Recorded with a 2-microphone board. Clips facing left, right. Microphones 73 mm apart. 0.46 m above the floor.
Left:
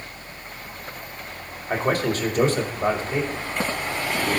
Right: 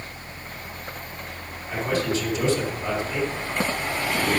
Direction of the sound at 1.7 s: 60° left (ahead or behind).